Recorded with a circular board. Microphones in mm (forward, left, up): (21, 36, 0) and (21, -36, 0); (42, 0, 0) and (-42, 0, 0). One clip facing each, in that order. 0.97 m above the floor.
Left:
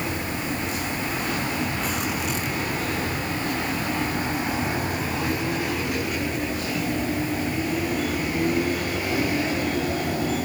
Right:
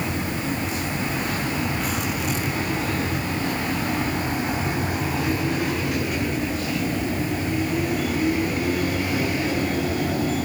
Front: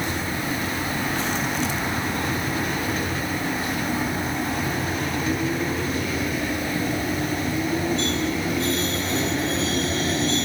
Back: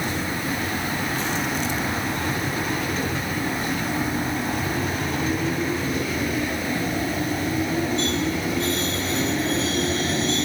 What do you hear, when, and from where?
Only background noise.